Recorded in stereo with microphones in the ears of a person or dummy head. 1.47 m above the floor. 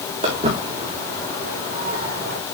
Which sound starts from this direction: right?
Footsteps, at 0.2 s.